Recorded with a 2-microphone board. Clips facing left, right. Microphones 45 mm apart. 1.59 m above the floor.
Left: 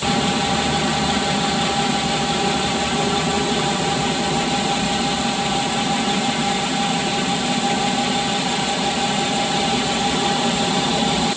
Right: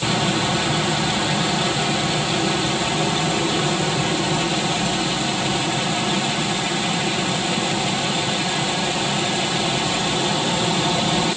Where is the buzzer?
I don't hear a buzzer.